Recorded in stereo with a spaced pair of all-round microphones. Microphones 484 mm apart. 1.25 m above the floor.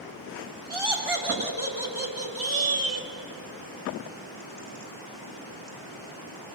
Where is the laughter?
90° right, 3.5 m; by 3.1 s 65° right (ahead or behind), 2.5 m.